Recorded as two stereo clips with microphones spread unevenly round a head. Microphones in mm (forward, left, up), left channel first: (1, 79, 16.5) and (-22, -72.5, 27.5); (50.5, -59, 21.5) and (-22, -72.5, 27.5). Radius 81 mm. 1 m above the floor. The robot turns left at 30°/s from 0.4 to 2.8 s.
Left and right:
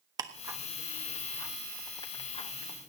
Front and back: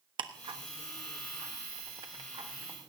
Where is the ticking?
165° right, 1.2 m; by 2.9 s 120° left, 1.2 m.